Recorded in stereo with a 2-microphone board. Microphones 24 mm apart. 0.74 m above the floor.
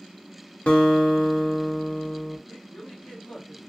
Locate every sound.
0.7 s a guitar: 65° left (ahead or behind), 0.8 m
2.5 s a woman speaking: 50° left (ahead or behind), 1.5 m